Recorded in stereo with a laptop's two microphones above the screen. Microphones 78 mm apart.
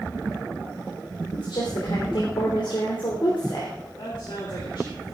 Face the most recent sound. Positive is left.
turn(degrees=75)  # may be behind; listen again after turning